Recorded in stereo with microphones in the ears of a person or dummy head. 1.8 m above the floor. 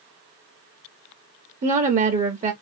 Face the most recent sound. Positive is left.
turn(degrees=-45)  # may be behind; listen again after turning